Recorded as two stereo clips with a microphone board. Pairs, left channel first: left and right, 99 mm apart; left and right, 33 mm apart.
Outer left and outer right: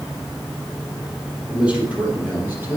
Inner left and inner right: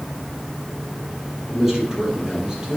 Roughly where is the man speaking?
Centre.